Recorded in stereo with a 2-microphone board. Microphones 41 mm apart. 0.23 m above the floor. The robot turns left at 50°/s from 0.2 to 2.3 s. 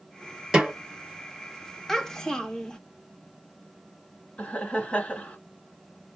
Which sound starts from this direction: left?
Laughter, at 4.4 s.